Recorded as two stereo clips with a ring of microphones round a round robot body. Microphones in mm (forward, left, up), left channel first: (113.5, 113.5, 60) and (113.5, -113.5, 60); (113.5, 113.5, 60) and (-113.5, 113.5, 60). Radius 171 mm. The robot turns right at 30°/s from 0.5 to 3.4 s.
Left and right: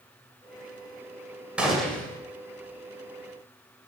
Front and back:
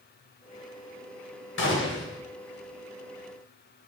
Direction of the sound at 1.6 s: 5° right.